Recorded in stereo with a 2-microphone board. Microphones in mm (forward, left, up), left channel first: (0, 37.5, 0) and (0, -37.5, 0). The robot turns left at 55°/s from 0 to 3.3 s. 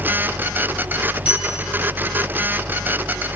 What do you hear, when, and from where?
1.2 s a bell: 15° right (ahead or behind), 8 m; by 1.5 s centre (ahead or behind), 8 m